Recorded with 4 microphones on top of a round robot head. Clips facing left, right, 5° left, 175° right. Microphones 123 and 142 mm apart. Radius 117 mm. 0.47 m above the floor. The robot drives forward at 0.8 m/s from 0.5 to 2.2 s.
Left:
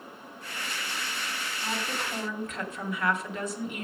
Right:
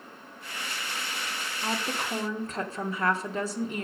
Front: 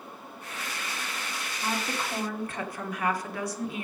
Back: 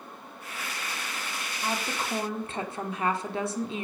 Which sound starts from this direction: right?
A woman speaking, at 1.6 s.